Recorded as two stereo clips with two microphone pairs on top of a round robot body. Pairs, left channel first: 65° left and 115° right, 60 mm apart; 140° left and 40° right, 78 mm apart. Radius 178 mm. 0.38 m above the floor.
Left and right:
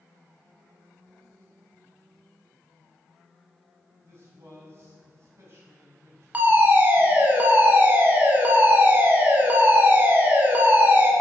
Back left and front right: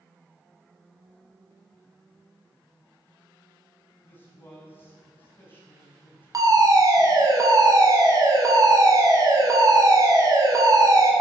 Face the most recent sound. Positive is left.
turn(degrees=-60)